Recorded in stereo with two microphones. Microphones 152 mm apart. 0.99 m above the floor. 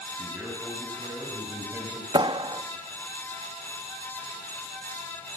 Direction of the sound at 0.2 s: 10° right (ahead or behind).